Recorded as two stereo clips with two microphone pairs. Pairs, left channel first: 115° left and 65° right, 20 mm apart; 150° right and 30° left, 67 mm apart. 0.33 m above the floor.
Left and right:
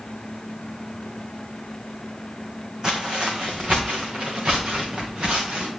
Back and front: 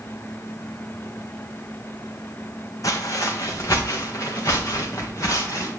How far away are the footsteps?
About 1.2 m.